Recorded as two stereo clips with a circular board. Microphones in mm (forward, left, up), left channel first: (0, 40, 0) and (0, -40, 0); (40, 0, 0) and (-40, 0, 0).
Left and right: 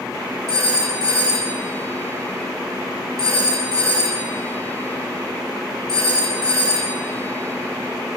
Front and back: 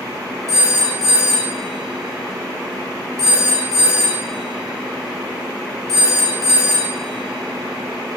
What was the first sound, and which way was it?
A phone ringing, 140° right.